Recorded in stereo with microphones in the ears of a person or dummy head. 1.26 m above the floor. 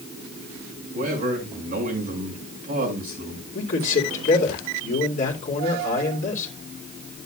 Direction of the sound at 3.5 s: 40° left (ahead or behind).